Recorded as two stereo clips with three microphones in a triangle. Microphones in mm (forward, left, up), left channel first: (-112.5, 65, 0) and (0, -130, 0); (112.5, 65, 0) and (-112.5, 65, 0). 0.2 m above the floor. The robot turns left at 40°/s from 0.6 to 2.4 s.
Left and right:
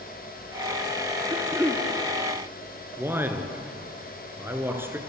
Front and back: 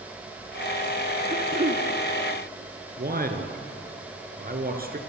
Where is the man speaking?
140° right, 3 m.